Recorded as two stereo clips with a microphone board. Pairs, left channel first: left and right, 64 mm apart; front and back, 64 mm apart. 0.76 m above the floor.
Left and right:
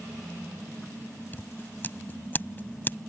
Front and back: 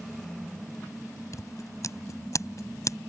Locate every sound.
1.3 s scissors: 30° left